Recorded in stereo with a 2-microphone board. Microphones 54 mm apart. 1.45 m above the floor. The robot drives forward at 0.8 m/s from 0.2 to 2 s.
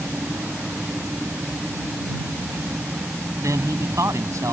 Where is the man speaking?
70° right (ahead or behind).